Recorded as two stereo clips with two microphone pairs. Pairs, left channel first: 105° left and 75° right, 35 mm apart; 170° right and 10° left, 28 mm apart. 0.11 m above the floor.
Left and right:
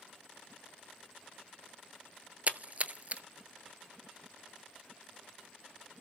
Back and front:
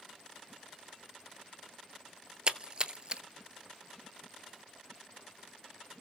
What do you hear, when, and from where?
2.5 s a splash: 40° right, 0.6 m